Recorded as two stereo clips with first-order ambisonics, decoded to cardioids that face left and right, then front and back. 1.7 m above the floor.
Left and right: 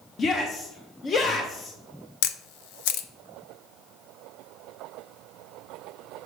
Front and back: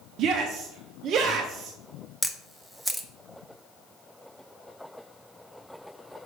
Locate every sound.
0.2 s a shout: 150° left, 0.7 m
2.2 s a camera shutter: 95° left, 0.7 m